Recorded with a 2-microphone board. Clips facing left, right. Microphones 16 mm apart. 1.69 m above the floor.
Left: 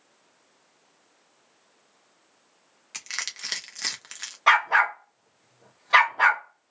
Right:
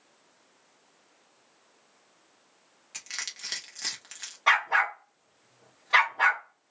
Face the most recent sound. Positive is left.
turn(degrees=5)  # may be behind; listen again after turning